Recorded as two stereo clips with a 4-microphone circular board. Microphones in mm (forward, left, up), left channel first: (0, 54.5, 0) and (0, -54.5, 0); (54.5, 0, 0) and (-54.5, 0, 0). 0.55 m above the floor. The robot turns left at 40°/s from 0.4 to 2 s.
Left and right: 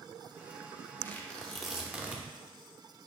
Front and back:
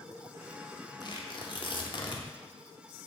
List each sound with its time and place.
1.0 s tearing paper: 25° left, 0.6 m; by 2.3 s 15° right, 0.6 m